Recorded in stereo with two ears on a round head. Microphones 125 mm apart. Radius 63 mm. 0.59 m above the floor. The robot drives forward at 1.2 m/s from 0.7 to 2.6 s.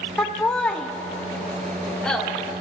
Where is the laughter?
5° left (ahead or behind), 1.0 m.